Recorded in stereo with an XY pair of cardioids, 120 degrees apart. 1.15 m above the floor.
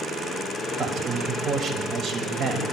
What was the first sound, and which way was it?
A man speaking, 50° right.